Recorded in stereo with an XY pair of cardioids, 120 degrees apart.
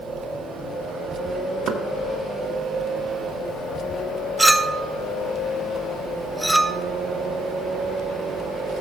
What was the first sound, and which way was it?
Knocking, 55° right.